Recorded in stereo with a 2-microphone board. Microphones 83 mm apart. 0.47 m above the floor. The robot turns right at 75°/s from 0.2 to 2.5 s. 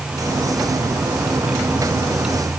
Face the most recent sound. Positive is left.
No sound to turn to.